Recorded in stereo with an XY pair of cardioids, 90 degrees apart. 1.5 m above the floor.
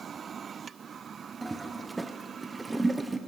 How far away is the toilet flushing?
About 0.7 m.